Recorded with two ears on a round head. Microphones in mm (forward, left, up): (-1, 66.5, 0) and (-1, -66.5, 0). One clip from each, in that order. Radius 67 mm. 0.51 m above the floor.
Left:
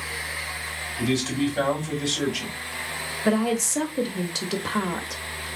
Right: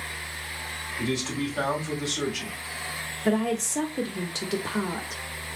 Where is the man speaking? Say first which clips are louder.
Left 4 dB; 10° left (ahead or behind), 3 m.